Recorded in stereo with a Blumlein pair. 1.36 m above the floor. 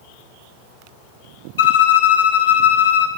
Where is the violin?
60° left, 0.8 m.